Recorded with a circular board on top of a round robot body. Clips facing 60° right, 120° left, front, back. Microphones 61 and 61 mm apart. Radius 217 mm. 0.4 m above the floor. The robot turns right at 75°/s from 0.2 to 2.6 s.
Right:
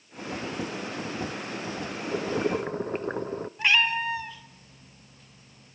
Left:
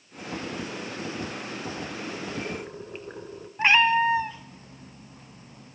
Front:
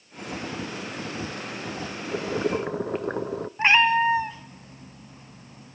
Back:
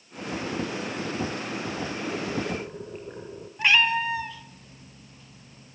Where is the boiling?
55° right, 0.6 m; by 3.5 s 15° right, 0.6 m.